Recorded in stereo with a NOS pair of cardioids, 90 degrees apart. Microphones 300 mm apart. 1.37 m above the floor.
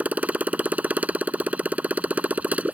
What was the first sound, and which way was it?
A motorcycle, 5° right.